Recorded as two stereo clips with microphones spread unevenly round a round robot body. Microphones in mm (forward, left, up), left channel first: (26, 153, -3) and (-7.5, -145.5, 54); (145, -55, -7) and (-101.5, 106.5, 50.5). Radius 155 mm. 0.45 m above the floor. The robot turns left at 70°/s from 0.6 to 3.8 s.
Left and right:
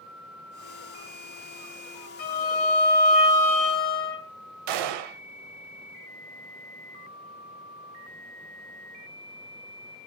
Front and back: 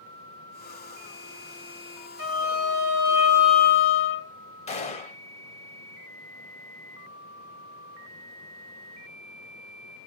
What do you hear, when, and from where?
2.2 s a violin: 130° left, 1.4 m; by 4.3 s 20° left, 1.4 m
4.7 s a gunshot: 105° right, 0.5 m